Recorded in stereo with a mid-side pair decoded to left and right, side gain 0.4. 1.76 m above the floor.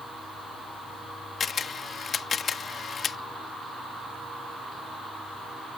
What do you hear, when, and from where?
1.4 s a camera shutter: 55° left